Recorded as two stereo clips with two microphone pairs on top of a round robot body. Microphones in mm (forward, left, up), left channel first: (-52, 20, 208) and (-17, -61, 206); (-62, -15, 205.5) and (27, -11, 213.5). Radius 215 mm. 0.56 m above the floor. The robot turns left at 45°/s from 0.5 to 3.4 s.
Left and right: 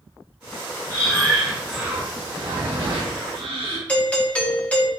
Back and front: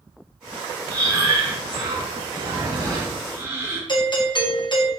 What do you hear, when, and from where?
0.9 s breathing: 55° left, 3 m; by 3.8 s 60° right, 3 m
3.9 s a doorbell: 170° right, 2 m